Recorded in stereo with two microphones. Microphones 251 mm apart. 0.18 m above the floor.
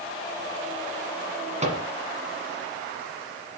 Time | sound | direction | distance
1.6 | a microwave | 25° right (ahead or behind) | 1.5 m